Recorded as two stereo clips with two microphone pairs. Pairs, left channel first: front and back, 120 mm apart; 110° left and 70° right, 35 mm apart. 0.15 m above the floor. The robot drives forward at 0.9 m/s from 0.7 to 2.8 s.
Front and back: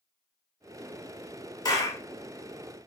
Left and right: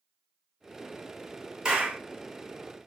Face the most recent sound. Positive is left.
turn(degrees=-130)